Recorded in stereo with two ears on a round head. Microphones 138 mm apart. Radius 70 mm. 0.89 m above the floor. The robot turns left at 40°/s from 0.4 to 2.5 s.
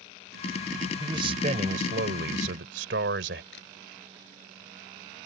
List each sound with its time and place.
1.0 s a man speaking: 25° right; by 3.4 s 85° right
3.5 s a camera shutter: 75° left (ahead or behind)